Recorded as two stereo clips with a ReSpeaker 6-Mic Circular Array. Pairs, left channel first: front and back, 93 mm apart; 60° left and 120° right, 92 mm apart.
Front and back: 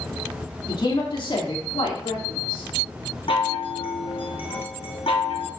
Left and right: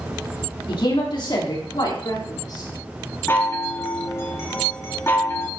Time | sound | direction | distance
0.7 | a woman speaking | 30° left | 3 m
3.3 | a chime | straight ahead | 1.4 m